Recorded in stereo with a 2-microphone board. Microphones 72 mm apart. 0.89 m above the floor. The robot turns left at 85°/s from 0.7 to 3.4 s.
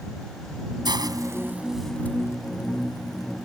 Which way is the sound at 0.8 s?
80° right.